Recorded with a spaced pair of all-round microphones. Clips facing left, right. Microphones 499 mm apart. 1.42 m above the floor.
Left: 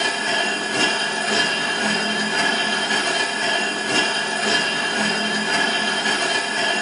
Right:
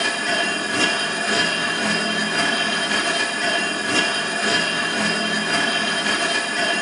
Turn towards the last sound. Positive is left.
turn(degrees=5)  # may be behind; listen again after turning